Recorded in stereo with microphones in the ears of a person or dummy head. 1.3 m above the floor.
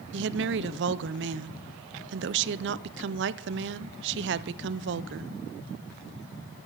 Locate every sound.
0.1 s a woman speaking: 60° right (ahead or behind), 0.6 m